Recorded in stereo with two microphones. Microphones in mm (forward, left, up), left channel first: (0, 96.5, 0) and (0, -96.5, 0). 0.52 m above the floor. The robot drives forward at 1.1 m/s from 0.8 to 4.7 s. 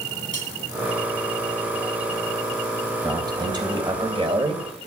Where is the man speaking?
20° right (ahead or behind), 4 m; by 4.9 s 35° right (ahead or behind), 2.5 m.